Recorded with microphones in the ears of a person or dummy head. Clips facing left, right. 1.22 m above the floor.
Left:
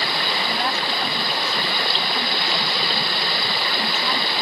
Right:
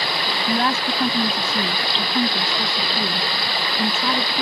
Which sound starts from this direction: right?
A woman speaking, at 0.5 s.